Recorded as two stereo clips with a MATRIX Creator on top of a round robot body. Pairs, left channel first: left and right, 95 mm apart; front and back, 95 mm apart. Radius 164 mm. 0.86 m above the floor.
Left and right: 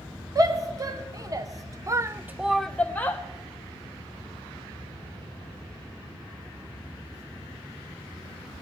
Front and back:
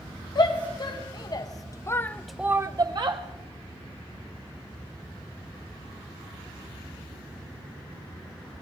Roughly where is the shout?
Ahead right.